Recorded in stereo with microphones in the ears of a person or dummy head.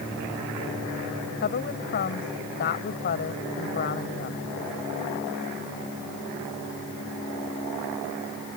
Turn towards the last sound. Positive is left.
turn(degrees=50)  # may be behind; listen again after turning